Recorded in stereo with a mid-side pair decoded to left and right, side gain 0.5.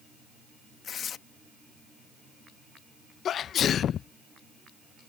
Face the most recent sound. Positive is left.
turn(degrees=55)